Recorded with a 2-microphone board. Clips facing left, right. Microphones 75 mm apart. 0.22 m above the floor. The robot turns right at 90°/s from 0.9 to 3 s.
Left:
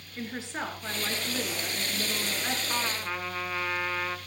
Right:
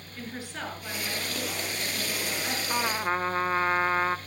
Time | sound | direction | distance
0.2 | a woman speaking | 25° left | 3.5 m
2.7 | a trumpet | 10° right (ahead or behind) | 0.6 m